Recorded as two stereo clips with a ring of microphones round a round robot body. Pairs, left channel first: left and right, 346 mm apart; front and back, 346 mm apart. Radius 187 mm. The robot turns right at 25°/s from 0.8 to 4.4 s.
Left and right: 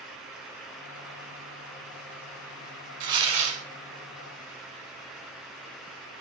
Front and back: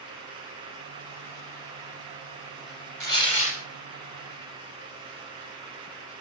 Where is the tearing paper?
60° right, 1.2 m; by 3.6 s 40° right, 1.2 m.